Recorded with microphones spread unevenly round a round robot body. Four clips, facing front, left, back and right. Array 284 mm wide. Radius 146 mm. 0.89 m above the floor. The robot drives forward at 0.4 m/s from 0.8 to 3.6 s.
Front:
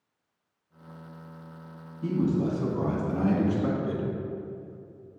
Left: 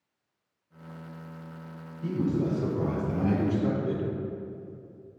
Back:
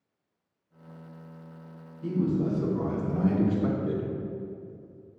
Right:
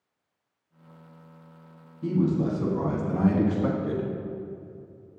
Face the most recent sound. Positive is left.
turn(degrees=-75)